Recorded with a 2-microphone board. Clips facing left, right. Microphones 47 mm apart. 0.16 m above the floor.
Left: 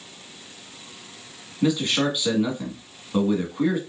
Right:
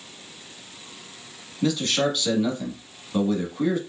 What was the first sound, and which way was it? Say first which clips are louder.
A man speaking: left 1 dB; 20° left (ahead or behind).